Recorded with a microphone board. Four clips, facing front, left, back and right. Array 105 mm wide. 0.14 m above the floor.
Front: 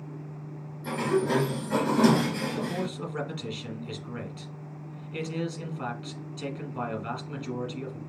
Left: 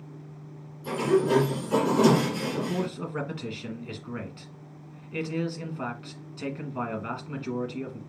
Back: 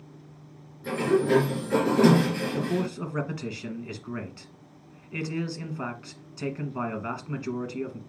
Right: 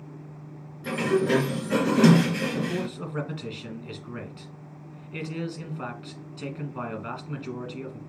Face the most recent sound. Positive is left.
turn(degrees=170)